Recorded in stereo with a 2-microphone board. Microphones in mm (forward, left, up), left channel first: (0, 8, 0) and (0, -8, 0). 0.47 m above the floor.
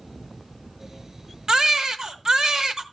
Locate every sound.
1.5 s a baby crying: 40° right (ahead or behind), 1.1 m